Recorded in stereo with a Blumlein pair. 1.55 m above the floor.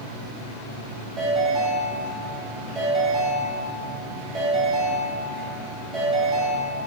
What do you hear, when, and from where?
1.2 s a ringtone: 10° right, 2.0 m